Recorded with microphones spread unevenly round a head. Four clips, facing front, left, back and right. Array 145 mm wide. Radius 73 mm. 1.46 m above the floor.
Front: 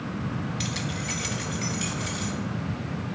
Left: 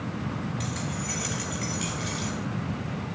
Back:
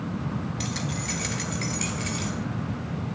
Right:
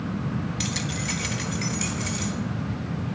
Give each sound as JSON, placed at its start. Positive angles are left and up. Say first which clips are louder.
{"t": 0.6, "sound": "keys jangling", "louder": "right 2 dB, back 1 dB", "azimuth_deg": -80, "distance_m": 1.4}